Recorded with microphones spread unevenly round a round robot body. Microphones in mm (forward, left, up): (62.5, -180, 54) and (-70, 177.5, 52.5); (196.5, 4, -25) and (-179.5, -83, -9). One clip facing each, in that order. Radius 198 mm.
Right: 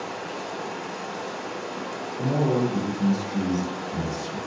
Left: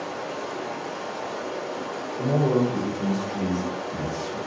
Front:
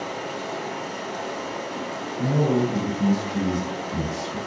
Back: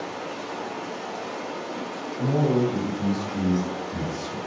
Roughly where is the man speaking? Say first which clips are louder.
Left 2 dB, even; ahead.